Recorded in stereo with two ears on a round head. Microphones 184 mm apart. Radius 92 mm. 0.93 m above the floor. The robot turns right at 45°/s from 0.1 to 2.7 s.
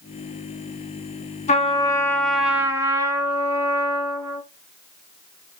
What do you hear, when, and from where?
1.5 s a trumpet: 140° left, 1.7 m; by 4.4 s 165° right, 1.7 m